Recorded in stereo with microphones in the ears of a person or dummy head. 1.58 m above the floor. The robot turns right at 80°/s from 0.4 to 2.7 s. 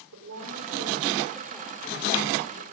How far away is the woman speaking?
About 5.5 m.